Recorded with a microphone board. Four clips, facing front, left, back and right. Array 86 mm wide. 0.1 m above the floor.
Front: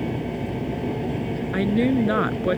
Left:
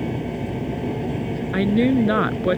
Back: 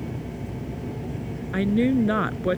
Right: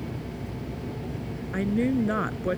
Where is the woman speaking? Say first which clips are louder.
Left 7 dB, even; 80° left.